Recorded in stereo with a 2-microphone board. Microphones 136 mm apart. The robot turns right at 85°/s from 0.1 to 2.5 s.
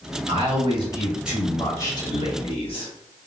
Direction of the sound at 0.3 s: 95° right.